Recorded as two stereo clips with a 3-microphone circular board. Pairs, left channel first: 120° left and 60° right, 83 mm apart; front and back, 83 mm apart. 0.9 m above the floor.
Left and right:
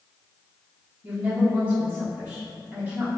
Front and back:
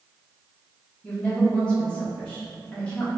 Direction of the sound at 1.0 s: 50° right.